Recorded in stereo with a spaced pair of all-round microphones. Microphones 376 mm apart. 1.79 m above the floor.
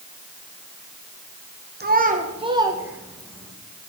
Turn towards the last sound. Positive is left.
turn(degrees=5)  # may be behind; listen again after turning